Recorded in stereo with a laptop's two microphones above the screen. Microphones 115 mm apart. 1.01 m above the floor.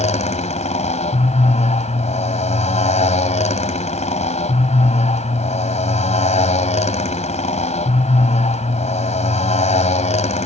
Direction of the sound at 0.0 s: 80° left.